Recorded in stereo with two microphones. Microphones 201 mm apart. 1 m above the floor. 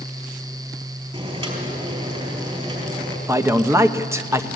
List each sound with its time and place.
1.1 s boiling: 30° right (ahead or behind), 4.5 m
3.3 s a man speaking: 15° right (ahead or behind), 1.0 m